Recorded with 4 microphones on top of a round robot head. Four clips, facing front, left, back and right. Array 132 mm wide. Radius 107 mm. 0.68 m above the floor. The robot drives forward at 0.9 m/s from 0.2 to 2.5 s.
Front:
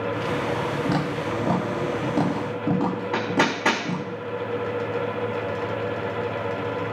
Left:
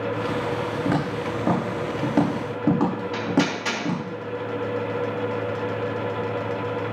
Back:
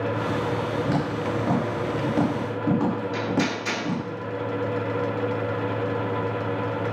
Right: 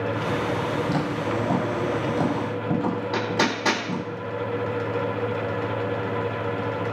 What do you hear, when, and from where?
0.8 s footsteps: 65° left, 8.5 m; by 4.0 s 95° left, 7.5 m
3.1 s hammering: 25° right, 4.5 m